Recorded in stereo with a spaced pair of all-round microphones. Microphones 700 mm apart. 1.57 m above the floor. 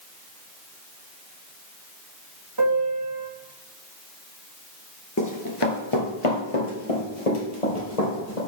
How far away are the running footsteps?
About 1.8 m.